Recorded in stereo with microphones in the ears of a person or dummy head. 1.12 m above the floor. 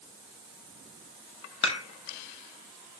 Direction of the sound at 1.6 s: 35° left (ahead or behind).